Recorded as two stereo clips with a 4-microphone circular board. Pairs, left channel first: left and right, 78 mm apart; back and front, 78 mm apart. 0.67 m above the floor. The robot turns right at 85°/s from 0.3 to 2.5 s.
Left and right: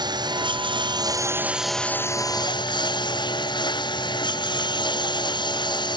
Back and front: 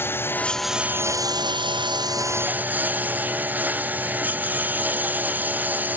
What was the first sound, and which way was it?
A lawn mower, 120° right.